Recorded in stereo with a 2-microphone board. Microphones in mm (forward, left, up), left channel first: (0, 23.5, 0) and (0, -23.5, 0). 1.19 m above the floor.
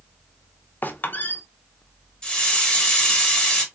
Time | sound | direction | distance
0.8 | a squeak | 45° left (ahead or behind) | 0.6 m
2.2 | a hiss | 20° left (ahead or behind) | 1.1 m